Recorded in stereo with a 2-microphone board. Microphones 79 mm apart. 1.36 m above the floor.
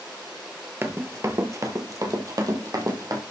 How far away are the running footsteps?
About 1.5 m.